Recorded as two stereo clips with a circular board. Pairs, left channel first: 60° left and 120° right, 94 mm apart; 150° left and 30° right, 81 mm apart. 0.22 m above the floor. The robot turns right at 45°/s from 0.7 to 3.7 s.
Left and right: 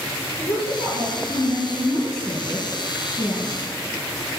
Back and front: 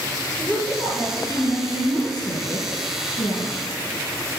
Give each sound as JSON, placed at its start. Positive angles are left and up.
{"t": 0.4, "sound": "a woman speaking", "azimuth_deg": 50, "distance_m": 4.5}